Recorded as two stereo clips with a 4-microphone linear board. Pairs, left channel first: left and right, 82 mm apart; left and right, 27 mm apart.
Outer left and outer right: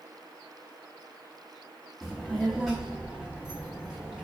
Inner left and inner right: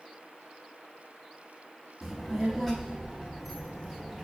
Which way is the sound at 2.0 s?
Centre (ahead or behind).